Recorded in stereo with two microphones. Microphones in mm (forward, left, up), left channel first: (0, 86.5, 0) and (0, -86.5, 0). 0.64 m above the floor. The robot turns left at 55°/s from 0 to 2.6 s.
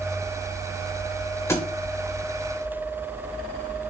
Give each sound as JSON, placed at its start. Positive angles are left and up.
{"t": 1.5, "sound": "a thud", "side_deg": 15, "distance_m": 0.7}